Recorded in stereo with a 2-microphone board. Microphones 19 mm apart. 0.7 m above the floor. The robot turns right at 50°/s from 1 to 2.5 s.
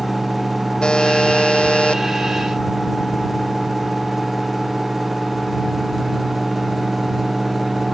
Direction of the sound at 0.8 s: 55° left.